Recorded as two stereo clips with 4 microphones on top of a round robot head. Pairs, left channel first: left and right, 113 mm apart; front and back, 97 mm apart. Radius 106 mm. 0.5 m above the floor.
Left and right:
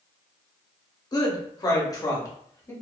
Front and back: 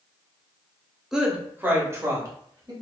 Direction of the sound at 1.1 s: 95° left.